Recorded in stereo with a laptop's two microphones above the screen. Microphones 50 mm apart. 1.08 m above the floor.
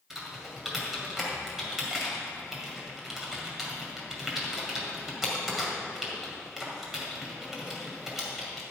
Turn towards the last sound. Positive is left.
turn(degrees=-10)  # may be behind; listen again after turning